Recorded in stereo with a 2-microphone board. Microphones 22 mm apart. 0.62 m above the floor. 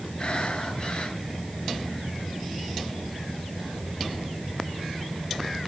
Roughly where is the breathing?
Left.